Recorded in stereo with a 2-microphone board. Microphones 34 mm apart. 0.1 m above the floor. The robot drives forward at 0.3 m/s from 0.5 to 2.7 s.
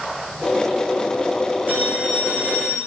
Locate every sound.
1.7 s a phone ringing: 50° right (ahead or behind), 4 m; by 2.8 s 55° right (ahead or behind), 4 m